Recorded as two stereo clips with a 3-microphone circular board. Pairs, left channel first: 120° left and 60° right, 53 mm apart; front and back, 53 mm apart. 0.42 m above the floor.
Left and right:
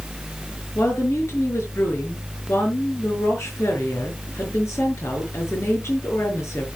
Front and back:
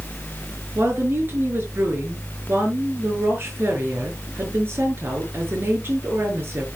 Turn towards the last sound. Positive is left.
turn(degrees=140)